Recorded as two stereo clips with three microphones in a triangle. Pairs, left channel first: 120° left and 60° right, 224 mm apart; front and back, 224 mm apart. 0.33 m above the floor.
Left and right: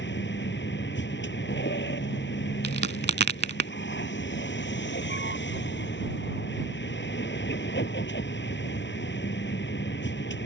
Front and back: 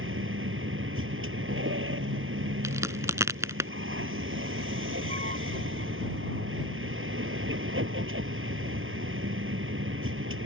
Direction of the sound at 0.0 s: 155° left.